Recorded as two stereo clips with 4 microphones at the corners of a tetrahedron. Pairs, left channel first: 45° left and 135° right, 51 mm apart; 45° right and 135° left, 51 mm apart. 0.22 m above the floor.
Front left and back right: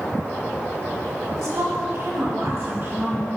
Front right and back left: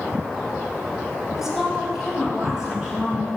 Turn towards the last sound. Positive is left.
turn(degrees=-150)